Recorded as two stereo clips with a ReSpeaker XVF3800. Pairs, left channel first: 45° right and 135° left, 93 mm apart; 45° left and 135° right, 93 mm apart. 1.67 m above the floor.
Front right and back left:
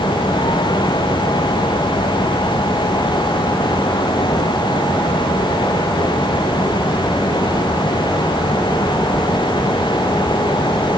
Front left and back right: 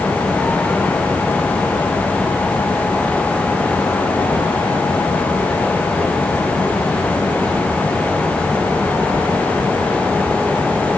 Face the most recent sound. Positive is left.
No sound to turn to.